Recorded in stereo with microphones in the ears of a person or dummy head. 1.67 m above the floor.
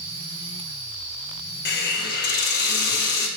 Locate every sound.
1.6 s a hiss: 55° left (ahead or behind), 0.6 m